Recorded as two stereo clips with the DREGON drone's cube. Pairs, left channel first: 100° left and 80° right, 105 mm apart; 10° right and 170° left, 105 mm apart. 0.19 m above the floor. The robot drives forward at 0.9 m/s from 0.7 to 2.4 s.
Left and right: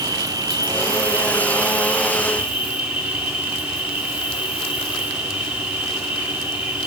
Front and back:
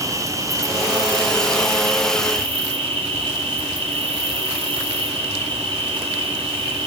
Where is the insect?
130° right, 1.1 m; by 6.9 s 160° right, 2.5 m.